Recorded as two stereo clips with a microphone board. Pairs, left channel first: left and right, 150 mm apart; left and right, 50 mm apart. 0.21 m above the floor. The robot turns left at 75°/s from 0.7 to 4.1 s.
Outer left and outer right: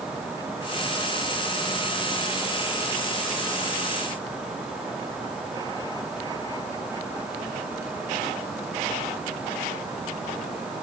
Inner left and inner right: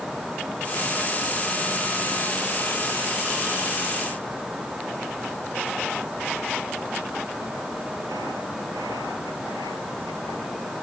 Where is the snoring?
No snoring in this recording.